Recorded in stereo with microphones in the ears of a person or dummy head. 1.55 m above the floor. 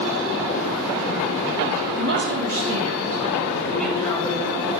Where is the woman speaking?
55° right (ahead or behind), 1.4 m; by 4.7 s 15° left (ahead or behind), 3 m.